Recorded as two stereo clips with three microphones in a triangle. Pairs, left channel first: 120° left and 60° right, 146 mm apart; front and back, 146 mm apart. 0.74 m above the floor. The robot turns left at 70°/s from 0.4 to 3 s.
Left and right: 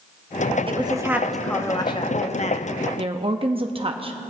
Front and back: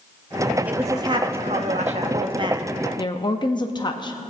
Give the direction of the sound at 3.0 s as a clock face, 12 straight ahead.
1 o'clock.